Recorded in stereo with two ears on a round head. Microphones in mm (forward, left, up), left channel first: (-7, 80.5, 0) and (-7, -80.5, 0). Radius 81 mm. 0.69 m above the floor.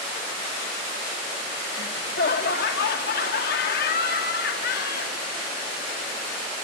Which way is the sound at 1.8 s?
55° left (ahead or behind).